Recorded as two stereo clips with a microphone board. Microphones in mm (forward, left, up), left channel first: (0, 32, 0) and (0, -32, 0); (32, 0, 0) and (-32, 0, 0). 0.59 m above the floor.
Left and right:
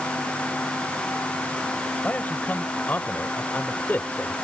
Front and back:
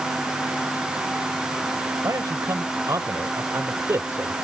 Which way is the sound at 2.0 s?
155° left.